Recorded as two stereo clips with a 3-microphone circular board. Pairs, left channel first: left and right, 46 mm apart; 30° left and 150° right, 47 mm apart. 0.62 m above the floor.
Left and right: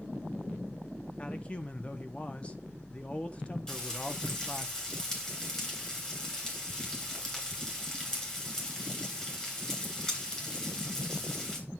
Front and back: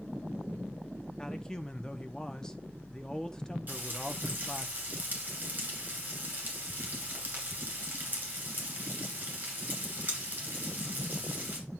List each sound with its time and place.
1.2 s a man speaking: 85° left, 0.7 m
3.7 s frying: 160° left, 2.5 m